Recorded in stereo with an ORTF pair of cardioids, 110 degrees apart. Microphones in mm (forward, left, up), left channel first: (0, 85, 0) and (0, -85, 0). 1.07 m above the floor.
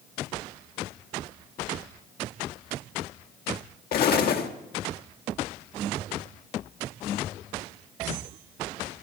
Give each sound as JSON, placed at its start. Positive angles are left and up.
{"t": 3.9, "sound": "an explosion", "azimuth_deg": 65, "distance_m": 1.6}